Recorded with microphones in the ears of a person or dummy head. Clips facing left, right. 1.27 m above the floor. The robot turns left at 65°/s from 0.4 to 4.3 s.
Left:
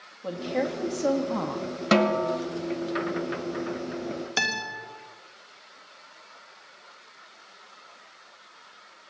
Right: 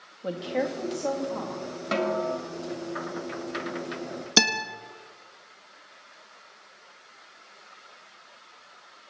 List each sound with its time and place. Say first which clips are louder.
0.2 s a woman speaking: even; 165° right, 1.6 m; by 1.8 s 105° left, 1.6 m
1.9 s a snare drum: left 4 dB; 75° left, 1.3 m; by 2.4 s 45° left, 1.3 m
4.4 s a guitar: right 6 dB; 60° right (ahead or behind), 1.4 m